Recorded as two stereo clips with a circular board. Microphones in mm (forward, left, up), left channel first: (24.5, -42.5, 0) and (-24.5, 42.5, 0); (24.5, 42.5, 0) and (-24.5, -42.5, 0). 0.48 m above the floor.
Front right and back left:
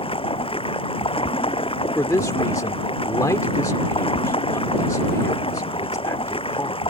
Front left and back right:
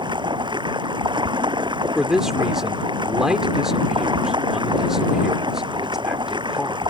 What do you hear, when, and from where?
0.0 s running water: 80° right
1.9 s a man speaking: 40° right